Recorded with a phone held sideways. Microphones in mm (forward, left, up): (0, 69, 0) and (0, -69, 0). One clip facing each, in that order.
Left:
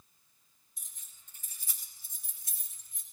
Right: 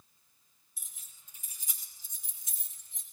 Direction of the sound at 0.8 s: 5° right (ahead or behind).